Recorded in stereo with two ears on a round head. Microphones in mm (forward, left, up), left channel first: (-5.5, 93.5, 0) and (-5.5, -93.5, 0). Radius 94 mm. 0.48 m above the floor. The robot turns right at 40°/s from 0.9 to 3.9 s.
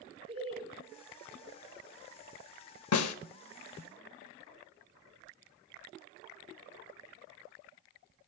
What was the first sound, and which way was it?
Laughter, 30° right (ahead or behind).